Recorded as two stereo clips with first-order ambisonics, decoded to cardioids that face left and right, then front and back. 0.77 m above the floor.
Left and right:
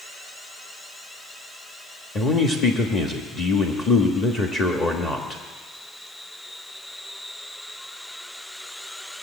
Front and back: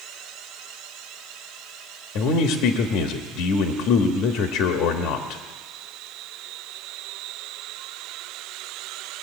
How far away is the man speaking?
About 1.2 m.